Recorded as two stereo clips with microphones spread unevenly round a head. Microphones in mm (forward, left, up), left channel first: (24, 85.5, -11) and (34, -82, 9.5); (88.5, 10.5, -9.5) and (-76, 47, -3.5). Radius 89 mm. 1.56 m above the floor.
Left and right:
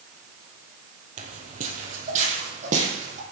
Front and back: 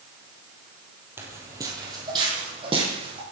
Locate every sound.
1.2 s footsteps: 120° right, 2.5 m; by 3.2 s 135° right, 4.5 m